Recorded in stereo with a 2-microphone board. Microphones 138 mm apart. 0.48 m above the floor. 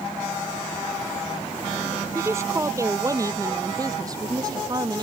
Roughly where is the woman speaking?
Centre.